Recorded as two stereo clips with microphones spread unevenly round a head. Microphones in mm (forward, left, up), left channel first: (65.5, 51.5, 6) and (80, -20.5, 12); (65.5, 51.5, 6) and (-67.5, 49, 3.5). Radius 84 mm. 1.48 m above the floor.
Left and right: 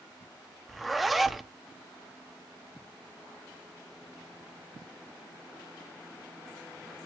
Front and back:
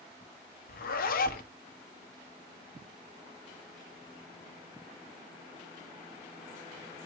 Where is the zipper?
10° left, 0.8 m.